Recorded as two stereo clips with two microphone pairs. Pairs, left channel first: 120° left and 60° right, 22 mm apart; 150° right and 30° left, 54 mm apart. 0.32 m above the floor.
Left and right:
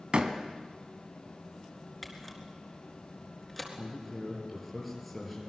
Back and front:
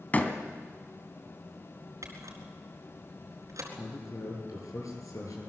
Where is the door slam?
95° right, 2 m.